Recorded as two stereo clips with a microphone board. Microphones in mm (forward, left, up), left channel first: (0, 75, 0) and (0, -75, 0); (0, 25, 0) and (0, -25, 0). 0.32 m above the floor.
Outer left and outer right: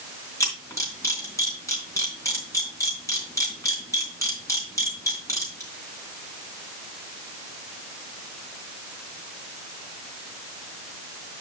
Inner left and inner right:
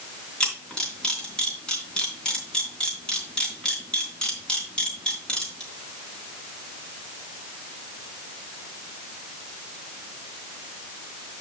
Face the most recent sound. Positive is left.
turn(degrees=20)  # may be behind; listen again after turning